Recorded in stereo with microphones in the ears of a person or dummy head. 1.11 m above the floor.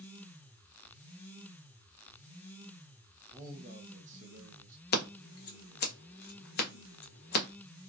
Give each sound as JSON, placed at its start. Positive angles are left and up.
{"t": 3.3, "sound": "a man speaking", "side_deg": -10, "distance_m": 0.7}
{"t": 4.9, "sound": "scissors", "side_deg": 45, "distance_m": 0.5}